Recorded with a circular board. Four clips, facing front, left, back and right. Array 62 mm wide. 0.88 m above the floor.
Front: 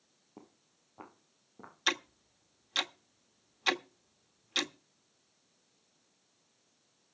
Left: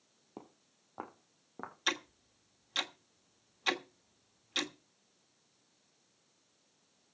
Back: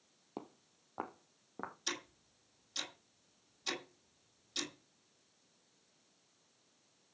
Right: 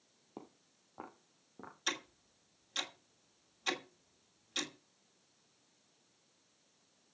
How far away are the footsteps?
About 1.8 m.